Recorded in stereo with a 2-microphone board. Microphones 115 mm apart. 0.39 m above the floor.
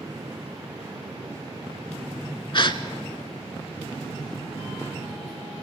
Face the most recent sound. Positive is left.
turn(degrees=45)  # may be behind; listen again after turning